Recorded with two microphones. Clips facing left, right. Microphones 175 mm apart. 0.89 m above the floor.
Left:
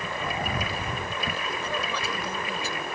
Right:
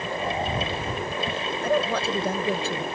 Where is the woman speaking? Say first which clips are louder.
Right 12 dB; 65° right (ahead or behind).